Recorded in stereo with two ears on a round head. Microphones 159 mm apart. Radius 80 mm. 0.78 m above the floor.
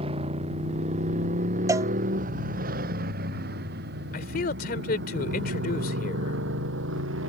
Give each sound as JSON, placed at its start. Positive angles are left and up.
{"t": 0.0, "sound": "a motorcycle", "side_deg": -30}
{"t": 1.7, "sound": "a cowbell", "side_deg": -15}
{"t": 4.1, "sound": "a man speaking", "side_deg": 50}